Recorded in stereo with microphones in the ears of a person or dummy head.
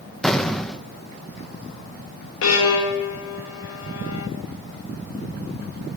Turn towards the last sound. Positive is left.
turn(degrees=75)  # may be behind; listen again after turning